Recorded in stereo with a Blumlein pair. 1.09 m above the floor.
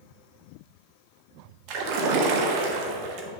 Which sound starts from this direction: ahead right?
A splash, at 1.7 s.